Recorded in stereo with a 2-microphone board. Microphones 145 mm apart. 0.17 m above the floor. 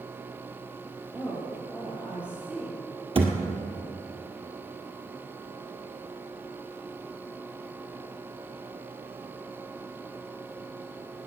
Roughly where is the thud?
Right.